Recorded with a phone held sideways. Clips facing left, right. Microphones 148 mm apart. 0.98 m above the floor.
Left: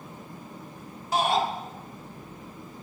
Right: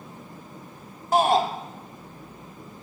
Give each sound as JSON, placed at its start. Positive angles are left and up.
{"t": 1.1, "sound": "a shout", "side_deg": -50, "distance_m": 2.0}